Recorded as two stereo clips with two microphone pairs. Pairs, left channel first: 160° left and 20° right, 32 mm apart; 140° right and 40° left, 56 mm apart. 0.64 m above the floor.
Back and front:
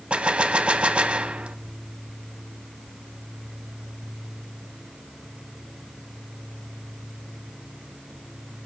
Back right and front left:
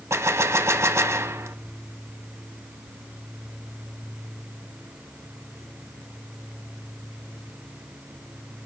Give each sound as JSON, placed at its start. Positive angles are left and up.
{"t": 0.1, "sound": "a gunshot", "azimuth_deg": 25, "distance_m": 0.7}